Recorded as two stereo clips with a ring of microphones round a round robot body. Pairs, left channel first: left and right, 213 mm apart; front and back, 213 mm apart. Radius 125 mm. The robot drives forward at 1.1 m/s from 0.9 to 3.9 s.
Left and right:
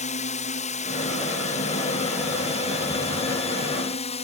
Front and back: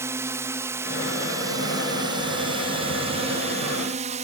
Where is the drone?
110° left; by 4.2 s 135° left.